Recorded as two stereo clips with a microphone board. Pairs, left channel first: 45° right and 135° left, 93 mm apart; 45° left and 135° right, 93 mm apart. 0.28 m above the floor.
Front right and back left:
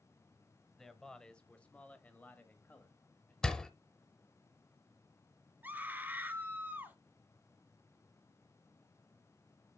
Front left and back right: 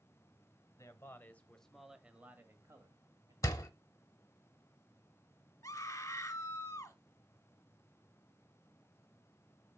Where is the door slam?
30° left, 0.8 m.